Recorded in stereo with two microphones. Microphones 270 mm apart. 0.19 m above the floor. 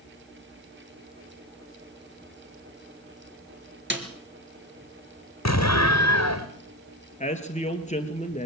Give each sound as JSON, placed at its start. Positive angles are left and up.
{"t": 3.9, "sound": "a snare drum", "side_deg": -45, "distance_m": 3.0}
{"t": 5.5, "sound": "an explosion", "side_deg": 75, "distance_m": 2.5}
{"t": 7.2, "sound": "a man speaking", "side_deg": 25, "distance_m": 3.0}